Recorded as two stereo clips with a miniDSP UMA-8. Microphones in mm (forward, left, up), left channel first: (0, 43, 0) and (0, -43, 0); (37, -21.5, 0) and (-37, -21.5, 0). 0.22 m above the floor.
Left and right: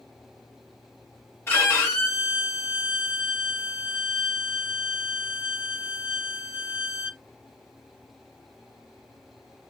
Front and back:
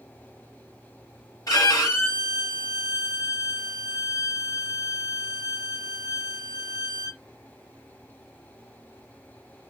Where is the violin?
25° left, 3 m.